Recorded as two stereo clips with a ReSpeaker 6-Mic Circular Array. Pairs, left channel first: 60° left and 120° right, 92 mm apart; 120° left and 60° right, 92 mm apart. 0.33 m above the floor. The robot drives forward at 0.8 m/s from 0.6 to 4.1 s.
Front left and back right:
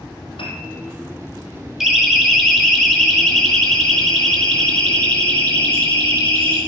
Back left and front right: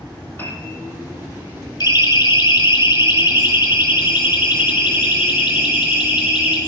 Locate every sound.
0.4 s a piano: 55° left, 5.5 m
1.8 s a siren: 155° left, 3.5 m; by 6.6 s 130° left, 6.5 m